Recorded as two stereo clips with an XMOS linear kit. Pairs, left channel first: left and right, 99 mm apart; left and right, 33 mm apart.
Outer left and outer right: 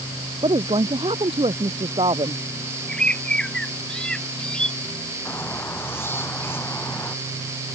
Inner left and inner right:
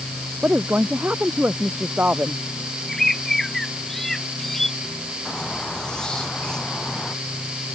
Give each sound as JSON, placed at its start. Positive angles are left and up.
{"t": 0.4, "sound": "a woman speaking", "side_deg": -65}
{"t": 2.9, "sound": "a bird", "side_deg": 10}
{"t": 5.2, "sound": "a squeak", "side_deg": 20}